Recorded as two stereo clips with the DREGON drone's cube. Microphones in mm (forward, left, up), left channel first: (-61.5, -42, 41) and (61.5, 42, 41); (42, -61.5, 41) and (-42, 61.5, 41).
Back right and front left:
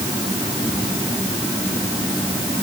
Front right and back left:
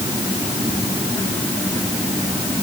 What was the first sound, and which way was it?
Only background noise.